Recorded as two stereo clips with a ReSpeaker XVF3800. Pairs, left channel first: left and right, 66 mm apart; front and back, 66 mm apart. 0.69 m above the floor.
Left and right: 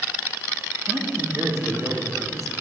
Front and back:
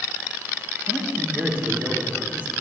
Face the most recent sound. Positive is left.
turn(degrees=-120)